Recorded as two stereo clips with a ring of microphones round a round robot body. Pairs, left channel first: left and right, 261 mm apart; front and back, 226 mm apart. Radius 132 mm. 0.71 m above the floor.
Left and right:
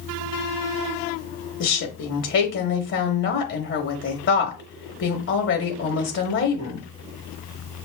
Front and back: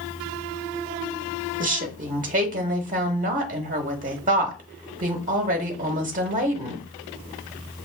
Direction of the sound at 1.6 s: 130° left.